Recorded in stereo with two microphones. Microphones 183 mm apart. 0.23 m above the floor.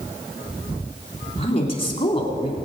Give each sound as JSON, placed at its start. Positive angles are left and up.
{"t": 1.4, "sound": "a woman speaking", "side_deg": 30, "distance_m": 2.0}